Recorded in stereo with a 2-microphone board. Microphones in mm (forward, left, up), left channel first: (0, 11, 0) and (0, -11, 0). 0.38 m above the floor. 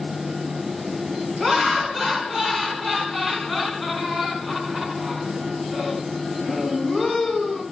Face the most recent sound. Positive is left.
turn(degrees=-5)  # may be behind; listen again after turning